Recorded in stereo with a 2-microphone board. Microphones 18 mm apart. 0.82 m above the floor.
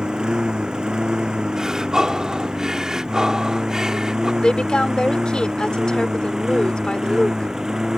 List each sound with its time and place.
0.0 s a lawn mower: 55° right (ahead or behind); by 8.0 s 40° right (ahead or behind)
1.6 s breathing: 40° right (ahead or behind)
4.4 s a woman speaking: 70° left (ahead or behind)